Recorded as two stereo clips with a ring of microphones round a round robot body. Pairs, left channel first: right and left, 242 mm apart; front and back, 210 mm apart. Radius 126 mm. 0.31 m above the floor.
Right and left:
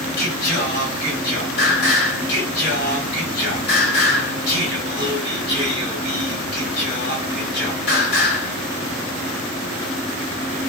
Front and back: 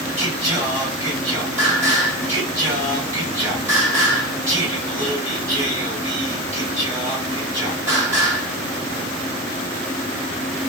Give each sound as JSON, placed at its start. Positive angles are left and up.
{"t": 0.2, "sound": "singing", "azimuth_deg": -110, "distance_m": 2.0}